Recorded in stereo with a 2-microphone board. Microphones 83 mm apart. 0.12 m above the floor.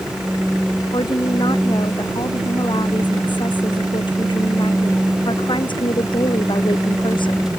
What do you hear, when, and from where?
0.9 s a woman speaking: 65° left (ahead or behind); by 7.5 s 75° left (ahead or behind)